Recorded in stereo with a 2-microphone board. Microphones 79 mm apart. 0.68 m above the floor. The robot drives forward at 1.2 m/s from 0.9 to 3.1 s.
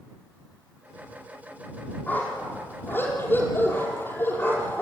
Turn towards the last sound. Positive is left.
turn(degrees=30)  # may be behind; listen again after turning